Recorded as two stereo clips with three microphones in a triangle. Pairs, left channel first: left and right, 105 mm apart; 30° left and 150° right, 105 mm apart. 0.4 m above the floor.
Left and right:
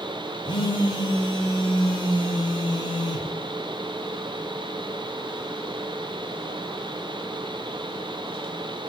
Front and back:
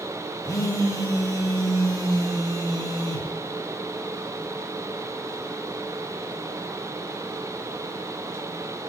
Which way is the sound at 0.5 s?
70° left.